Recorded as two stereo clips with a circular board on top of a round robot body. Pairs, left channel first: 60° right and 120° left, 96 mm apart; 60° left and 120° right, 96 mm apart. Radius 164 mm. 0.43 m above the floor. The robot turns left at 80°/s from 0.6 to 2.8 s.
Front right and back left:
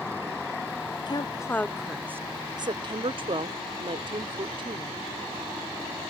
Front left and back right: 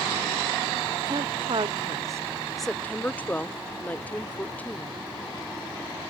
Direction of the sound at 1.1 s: 90° right.